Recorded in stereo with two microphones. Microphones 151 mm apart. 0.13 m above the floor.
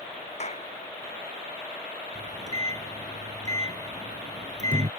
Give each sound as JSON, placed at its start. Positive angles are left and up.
{"t": 0.4, "sound": "a clap", "side_deg": 45}
{"t": 2.1, "sound": "a microwave", "side_deg": -50}